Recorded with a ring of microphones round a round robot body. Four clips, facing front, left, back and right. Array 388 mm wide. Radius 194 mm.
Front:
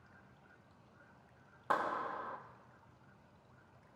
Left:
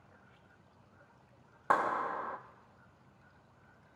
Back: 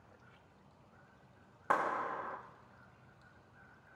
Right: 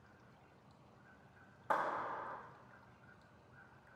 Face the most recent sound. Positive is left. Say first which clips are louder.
# left 7 dB, back 2 dB
turn(degrees=100)